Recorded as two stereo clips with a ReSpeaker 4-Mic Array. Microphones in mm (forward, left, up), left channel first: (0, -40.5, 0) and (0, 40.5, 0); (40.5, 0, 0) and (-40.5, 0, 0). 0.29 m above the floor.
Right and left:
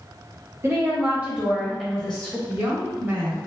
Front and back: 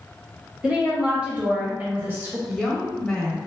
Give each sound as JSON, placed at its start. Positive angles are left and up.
{"t": 0.6, "sound": "a woman speaking", "azimuth_deg": 110, "distance_m": 1.4}
{"t": 2.5, "sound": "a woman speaking", "azimuth_deg": 80, "distance_m": 1.1}